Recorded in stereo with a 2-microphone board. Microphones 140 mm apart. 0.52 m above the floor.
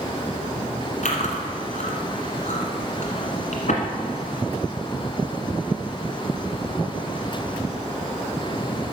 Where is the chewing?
65° left (ahead or behind), 1.5 m.